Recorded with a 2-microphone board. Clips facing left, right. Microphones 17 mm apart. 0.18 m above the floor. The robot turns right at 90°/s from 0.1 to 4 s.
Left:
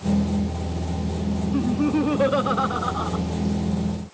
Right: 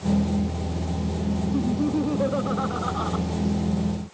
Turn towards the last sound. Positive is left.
turn(degrees=-95)